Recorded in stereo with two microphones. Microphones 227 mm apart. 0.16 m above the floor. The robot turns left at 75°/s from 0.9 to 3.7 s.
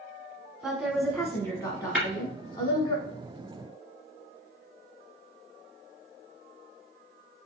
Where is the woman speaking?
5° right (ahead or behind), 1.1 m; by 3.0 s 15° left (ahead or behind), 1.1 m.